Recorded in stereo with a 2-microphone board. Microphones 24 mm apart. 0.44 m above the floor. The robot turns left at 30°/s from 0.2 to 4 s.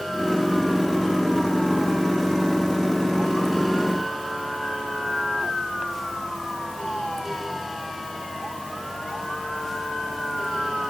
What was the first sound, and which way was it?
Only background noise.